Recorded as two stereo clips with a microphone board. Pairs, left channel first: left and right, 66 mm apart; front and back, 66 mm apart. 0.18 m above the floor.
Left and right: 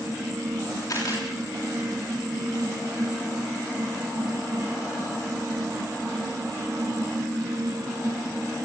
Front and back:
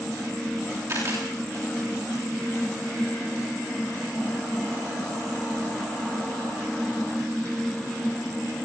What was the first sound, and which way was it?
A camera shutter, 135° left.